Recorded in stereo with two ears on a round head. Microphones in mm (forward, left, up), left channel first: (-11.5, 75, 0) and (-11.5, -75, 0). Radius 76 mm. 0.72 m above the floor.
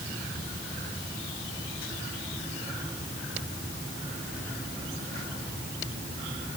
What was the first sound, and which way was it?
Only background noise.